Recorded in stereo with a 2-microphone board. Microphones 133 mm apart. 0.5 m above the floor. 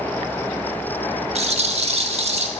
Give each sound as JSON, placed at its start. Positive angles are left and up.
{"t": 1.4, "sound": "a rattle", "side_deg": -50, "distance_m": 1.2}